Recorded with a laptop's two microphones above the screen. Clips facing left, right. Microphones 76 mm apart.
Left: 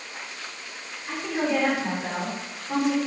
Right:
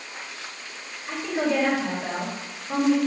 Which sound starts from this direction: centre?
A woman speaking, at 1.1 s.